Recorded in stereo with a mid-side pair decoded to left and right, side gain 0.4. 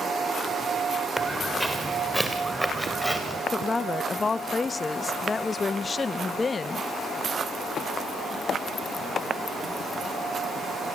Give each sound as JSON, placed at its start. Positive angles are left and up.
{"t": 1.2, "sound": "footsteps", "azimuth_deg": -10, "distance_m": 4.5}
{"t": 3.5, "sound": "a woman speaking", "azimuth_deg": 30, "distance_m": 0.9}